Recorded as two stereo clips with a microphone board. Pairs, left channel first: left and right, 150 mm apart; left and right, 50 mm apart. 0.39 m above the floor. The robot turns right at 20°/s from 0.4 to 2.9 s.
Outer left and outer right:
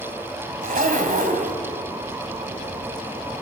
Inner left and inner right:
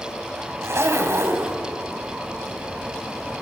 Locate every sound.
0.6 s a zipper: 70° right (ahead or behind), 1.9 m; by 1.6 s 65° right (ahead or behind), 1.9 m